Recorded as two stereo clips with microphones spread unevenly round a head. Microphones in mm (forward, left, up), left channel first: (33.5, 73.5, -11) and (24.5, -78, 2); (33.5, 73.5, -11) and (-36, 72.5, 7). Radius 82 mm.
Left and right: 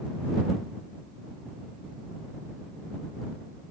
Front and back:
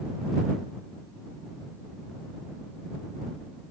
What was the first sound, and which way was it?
Only background noise.